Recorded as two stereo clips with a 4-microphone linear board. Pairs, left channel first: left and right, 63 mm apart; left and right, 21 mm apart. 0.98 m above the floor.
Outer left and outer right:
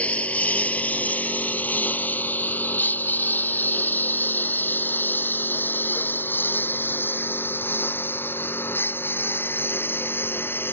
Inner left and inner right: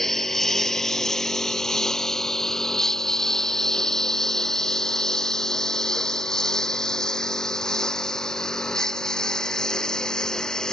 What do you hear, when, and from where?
0.0 s a lawn mower: 25° left (ahead or behind); by 10.7 s 35° left (ahead or behind)